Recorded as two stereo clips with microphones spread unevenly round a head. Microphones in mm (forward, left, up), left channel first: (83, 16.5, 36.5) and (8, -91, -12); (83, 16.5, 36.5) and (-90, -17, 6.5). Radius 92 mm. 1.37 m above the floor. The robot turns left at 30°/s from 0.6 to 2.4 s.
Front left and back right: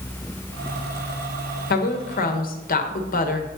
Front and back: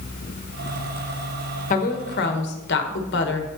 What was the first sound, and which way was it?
A woman speaking, 60° left.